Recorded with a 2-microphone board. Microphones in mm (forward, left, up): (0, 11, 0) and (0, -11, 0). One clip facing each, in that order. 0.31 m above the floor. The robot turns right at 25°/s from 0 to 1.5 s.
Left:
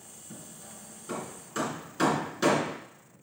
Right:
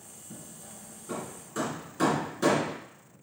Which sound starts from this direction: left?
Hammering, at 0.3 s.